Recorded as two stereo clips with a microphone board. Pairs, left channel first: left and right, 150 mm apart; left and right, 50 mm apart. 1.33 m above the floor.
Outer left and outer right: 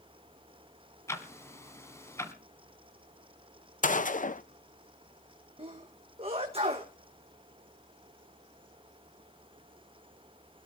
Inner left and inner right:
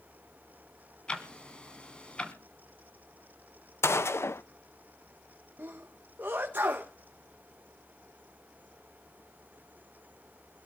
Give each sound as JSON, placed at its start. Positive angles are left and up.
{"t": 1.1, "sound": "ticking", "side_deg": 20, "distance_m": 1.7}
{"t": 3.8, "sound": "a gunshot", "side_deg": 60, "distance_m": 0.7}
{"t": 5.6, "sound": "a sneeze", "side_deg": -40, "distance_m": 1.2}